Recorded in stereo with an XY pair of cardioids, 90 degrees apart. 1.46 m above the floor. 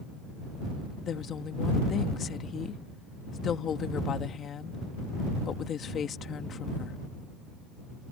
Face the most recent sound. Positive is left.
turn(degrees=60)